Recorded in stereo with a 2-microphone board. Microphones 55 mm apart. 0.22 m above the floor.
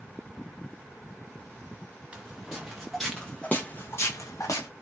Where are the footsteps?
20° right (ahead or behind), 1.1 m; by 4.7 s 75° left (ahead or behind), 0.8 m.